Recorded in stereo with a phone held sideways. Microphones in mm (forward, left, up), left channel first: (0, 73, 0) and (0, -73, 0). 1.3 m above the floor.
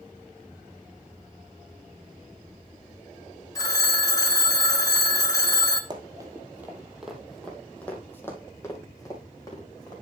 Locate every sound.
3.5 s a phone ringing: 25° left (ahead or behind), 0.8 m
5.9 s running footsteps: 30° right (ahead or behind), 1.8 m; by 9.9 s 25° left (ahead or behind), 4 m